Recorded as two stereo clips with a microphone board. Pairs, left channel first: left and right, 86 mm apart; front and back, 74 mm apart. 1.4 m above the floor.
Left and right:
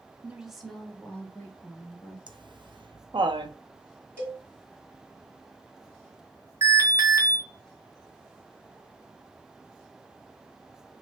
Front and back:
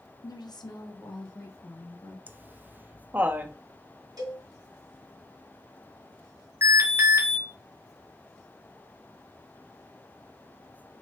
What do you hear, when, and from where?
0.2 s a woman speaking: 20° right, 0.7 m; by 2.2 s 30° left, 1.9 m
2.3 s laughter: 115° right, 0.6 m
4.2 s a cowbell: 155° right, 3 m
6.6 s an alarm: 140° right, 1.4 m